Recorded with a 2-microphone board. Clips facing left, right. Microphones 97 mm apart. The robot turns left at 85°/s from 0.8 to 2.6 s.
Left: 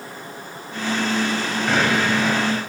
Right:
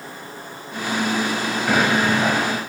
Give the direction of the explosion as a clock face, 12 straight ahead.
12 o'clock.